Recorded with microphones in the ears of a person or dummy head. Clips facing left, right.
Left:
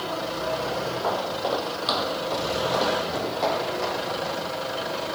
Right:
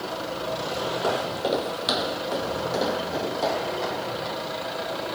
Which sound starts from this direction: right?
Footsteps, at 1.0 s.